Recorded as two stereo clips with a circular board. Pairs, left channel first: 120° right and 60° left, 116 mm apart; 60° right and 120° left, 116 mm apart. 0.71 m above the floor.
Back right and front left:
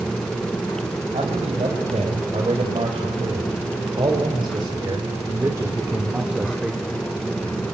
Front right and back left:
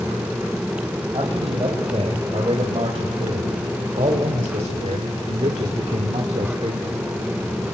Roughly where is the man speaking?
Left.